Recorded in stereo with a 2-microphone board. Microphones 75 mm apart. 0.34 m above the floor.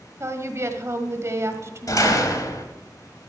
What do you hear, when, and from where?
0.2 s a woman speaking: 40° right (ahead or behind), 1.3 m
1.9 s a door slam: 55° left (ahead or behind), 1.5 m